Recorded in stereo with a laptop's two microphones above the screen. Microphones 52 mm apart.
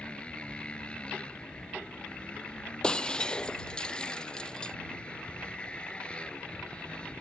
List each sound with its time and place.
0.0 s a motorcycle: 20° left (ahead or behind)
2.8 s breaking glass: 15° left (ahead or behind)